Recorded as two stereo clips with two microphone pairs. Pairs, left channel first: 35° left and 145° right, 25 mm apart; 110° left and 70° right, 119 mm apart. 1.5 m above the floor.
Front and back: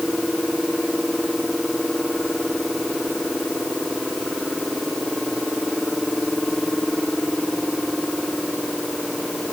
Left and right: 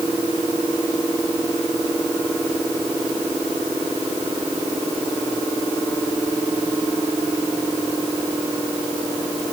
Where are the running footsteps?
I don't hear running footsteps.